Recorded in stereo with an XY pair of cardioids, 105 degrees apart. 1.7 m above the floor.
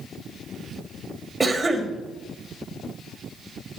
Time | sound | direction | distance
1.4 | a cough | 20° right | 1.7 m